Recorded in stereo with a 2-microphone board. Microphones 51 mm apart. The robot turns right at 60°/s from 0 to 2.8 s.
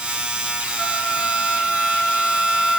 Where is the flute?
30° left (ahead or behind), 1.1 m; by 2.8 s 15° right (ahead or behind), 1.1 m.